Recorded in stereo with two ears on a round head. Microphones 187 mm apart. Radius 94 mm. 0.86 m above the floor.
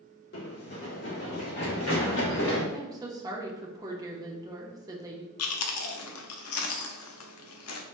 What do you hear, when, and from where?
0.3 s running footsteps: 50° left (ahead or behind), 1.7 m; by 2.6 s 70° left (ahead or behind), 4 m
2.7 s a woman speaking: 20° right (ahead or behind), 0.8 m
5.4 s chewing: 80° left, 0.6 m